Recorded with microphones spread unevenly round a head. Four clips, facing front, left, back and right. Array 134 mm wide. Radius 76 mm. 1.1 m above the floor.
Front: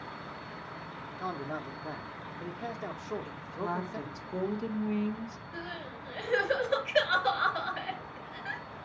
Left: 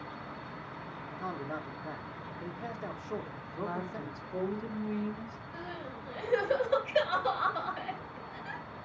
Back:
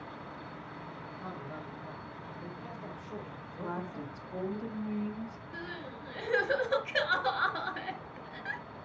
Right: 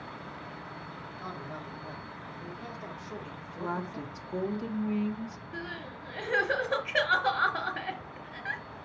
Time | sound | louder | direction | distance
1.2 | a man speaking | left 4 dB, front 8 dB | 20° left | 1.2 m
3.2 | a woman speaking | right 2 dB, front 4 dB | 40° right | 2.0 m
5.5 | crying | left 1 dB, front 1 dB | 95° right | 4 m